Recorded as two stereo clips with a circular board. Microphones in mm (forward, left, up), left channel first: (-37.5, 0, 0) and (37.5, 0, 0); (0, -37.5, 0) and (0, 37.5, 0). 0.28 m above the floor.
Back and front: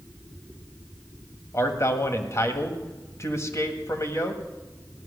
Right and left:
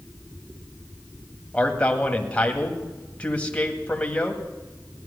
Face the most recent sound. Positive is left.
turn(degrees=-155)